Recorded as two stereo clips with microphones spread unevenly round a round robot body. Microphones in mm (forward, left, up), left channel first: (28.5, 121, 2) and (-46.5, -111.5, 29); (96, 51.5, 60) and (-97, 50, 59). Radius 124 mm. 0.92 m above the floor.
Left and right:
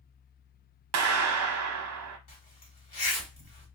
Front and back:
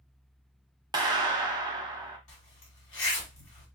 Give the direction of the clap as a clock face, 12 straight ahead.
4 o'clock.